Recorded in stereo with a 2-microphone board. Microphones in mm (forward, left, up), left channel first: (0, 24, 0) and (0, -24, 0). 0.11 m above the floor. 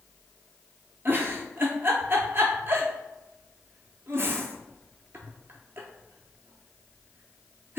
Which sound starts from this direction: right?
A giggle, at 1.1 s.